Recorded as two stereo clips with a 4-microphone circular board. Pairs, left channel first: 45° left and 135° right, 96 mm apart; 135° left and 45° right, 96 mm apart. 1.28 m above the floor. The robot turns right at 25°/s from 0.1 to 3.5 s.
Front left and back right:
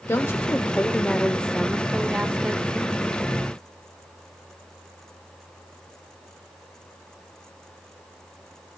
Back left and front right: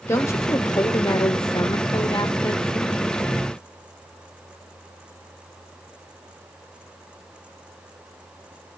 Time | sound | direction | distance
0.1 | a woman speaking | 90° left | 0.6 m